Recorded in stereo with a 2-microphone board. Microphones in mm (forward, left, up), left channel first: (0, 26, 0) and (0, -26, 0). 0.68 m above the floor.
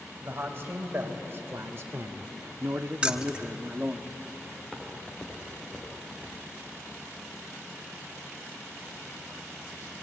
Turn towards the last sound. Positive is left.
turn(degrees=10)  # may be behind; listen again after turning